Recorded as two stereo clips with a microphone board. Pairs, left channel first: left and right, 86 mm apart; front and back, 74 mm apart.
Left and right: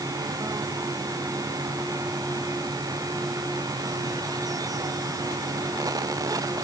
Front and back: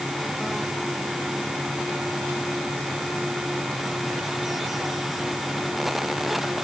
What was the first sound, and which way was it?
Only background noise.